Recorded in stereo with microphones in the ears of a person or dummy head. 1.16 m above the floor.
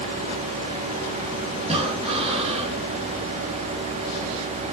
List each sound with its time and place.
1.6 s breathing: 35° right (ahead or behind), 2 m